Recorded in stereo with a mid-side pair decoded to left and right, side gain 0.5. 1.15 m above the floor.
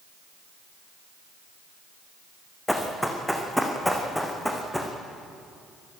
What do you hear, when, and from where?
2.7 s running footsteps: straight ahead, 4 m